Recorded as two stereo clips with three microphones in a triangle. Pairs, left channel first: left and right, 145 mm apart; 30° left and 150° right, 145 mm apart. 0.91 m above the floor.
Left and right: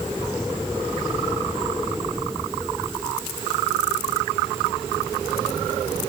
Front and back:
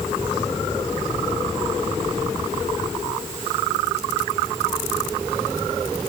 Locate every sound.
Only background noise.